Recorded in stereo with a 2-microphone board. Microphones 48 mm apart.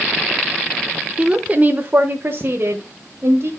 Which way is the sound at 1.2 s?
20° right (ahead or behind).